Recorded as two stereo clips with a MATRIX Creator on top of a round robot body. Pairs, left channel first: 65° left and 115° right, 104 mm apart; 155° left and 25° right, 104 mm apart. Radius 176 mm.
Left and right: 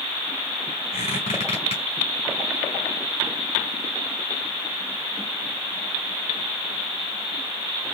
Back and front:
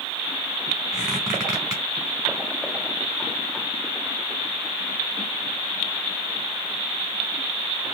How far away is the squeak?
About 1.0 m.